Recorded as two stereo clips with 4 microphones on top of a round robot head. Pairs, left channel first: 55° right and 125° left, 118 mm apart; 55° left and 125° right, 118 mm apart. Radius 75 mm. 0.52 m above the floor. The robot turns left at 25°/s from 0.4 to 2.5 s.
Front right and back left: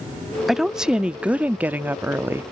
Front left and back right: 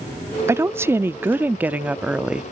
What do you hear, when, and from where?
0.5 s a woman speaking: 150° right; by 2.4 s 165° left